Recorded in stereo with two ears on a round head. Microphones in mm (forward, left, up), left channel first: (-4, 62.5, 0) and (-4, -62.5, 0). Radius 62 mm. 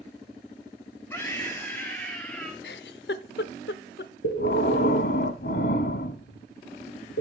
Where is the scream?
20° left (ahead or behind), 3.5 m; by 2.5 s 10° left (ahead or behind), 4 m.